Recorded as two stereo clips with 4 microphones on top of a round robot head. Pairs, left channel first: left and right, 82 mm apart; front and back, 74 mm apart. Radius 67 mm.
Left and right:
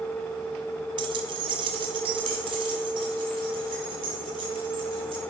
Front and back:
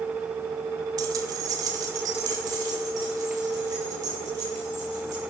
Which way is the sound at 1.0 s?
125° right.